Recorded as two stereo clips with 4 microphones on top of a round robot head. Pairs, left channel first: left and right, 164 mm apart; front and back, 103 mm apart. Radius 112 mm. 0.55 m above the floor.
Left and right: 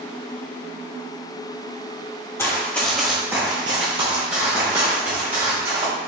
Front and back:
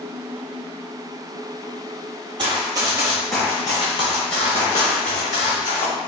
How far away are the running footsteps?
About 0.7 m.